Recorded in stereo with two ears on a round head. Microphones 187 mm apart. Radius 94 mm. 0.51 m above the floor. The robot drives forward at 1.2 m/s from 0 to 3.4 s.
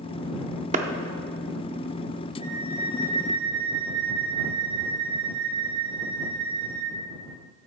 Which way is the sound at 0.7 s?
35° right (ahead or behind).